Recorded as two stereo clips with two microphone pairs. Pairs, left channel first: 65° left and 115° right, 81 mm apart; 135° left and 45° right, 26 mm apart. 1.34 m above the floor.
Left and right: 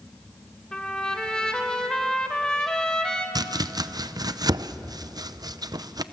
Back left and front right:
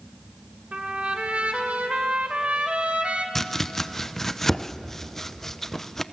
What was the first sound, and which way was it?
A trumpet, 15° right.